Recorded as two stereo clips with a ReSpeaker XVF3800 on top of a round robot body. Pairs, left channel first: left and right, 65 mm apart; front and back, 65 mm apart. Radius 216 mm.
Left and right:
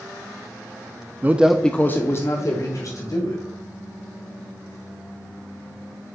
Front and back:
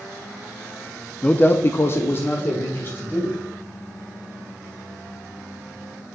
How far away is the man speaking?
About 0.9 m.